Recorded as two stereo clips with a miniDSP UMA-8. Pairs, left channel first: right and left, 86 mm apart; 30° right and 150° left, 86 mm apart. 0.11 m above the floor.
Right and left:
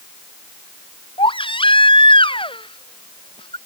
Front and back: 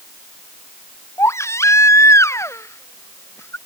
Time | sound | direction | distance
1.2 | a baby crying | 85° right | ?